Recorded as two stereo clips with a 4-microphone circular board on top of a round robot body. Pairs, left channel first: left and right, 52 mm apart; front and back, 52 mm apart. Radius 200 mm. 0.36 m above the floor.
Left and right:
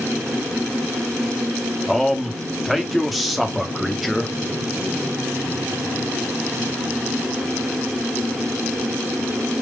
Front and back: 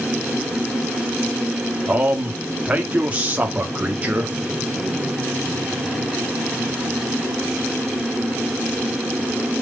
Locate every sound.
1.9 s a man speaking: 175° right, 1.5 m